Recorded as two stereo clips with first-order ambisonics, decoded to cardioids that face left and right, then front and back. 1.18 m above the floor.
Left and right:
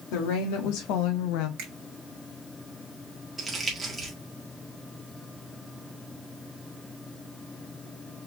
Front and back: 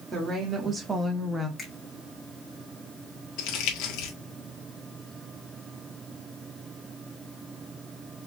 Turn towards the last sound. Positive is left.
turn(degrees=-15)